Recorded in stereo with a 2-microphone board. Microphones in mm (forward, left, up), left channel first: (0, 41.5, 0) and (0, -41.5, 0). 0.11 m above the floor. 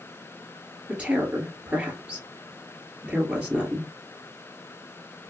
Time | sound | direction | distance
0.9 | a woman speaking | 15° right (ahead or behind) | 1.9 m